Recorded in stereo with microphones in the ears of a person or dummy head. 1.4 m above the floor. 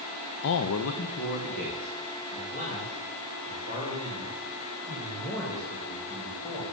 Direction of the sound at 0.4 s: 60° left (ahead or behind).